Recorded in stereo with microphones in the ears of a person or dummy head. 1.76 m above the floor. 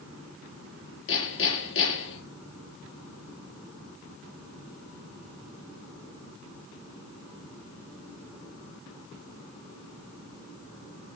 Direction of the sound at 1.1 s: 75° left (ahead or behind).